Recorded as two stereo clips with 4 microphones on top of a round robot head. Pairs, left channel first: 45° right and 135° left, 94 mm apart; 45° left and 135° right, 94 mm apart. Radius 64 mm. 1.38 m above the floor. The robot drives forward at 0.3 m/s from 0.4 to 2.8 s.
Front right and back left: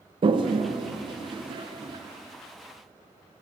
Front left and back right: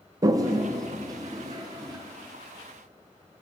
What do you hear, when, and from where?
0.2 s a toilet flushing: 170° left, 0.6 m; by 2.0 s 175° left, 1.0 m